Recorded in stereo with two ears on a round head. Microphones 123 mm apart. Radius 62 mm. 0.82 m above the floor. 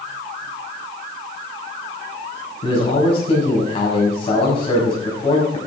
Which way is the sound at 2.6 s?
40° left (ahead or behind).